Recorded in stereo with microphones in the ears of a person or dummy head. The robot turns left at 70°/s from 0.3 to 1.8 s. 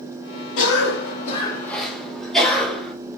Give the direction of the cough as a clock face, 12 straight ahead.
9 o'clock.